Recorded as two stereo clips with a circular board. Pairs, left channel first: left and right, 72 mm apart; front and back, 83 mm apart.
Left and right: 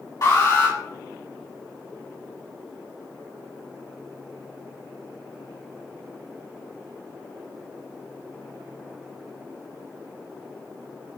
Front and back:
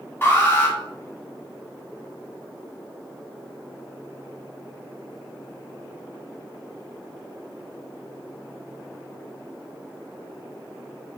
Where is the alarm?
60° left, 3 m.